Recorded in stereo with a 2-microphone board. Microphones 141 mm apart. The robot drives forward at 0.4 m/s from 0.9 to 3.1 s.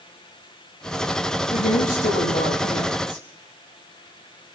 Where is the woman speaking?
80° left, 9.5 m; by 3.2 s 75° left (ahead or behind), 9.5 m.